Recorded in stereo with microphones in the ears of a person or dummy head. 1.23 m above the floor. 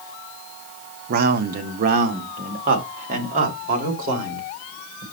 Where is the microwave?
I don't hear a microwave.